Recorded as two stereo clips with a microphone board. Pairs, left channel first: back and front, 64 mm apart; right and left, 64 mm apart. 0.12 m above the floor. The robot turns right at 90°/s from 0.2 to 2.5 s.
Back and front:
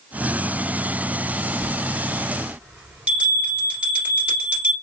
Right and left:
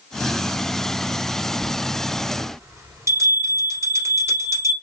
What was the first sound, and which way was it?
A bell, 10° right.